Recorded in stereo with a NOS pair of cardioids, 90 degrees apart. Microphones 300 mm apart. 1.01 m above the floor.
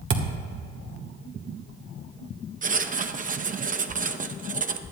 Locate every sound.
0.1 s a thud: 45° right, 1.3 m
2.6 s writing: 25° right, 0.7 m